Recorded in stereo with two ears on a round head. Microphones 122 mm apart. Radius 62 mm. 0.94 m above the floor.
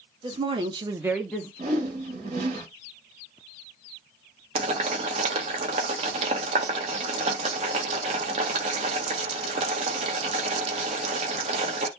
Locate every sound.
0.2 s a woman speaking: 35° right (ahead or behind), 1.3 m; by 1.5 s 15° left (ahead or behind), 0.8 m
1.6 s a whoosh: 50° right (ahead or behind), 1.3 m
4.5 s boiling: 45° right (ahead or behind), 0.8 m